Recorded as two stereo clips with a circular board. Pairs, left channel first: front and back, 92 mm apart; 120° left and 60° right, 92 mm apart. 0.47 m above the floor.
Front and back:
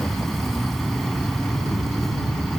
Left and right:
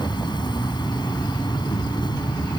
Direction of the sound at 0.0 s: 85° left.